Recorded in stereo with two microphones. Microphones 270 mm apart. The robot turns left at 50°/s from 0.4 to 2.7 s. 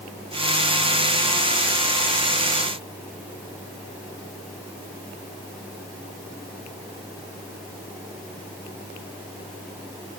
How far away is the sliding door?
No sliding door in this recording.